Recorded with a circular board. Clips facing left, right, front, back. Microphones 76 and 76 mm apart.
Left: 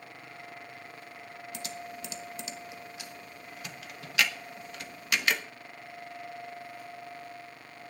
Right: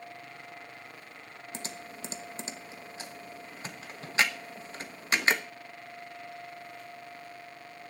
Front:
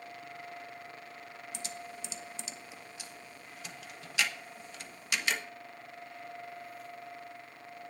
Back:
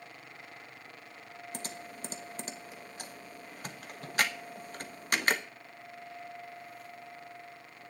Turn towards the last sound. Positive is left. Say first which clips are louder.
# left 1 dB, even
turn(degrees=-140)